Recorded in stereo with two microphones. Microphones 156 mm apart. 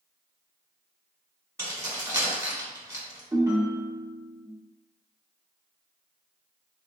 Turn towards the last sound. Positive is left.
turn(degrees=-20)  # may be behind; listen again after turning